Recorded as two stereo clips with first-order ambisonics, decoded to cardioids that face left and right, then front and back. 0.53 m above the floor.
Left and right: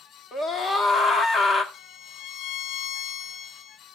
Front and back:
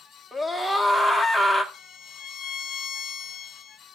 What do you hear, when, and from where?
0.3 s a scream: 75° left, 1.0 m
1.7 s a violin: 50° left, 0.7 m